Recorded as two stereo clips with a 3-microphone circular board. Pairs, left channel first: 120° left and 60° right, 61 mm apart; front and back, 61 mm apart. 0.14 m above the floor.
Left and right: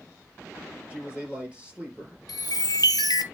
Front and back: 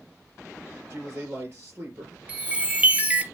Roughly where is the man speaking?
Behind right.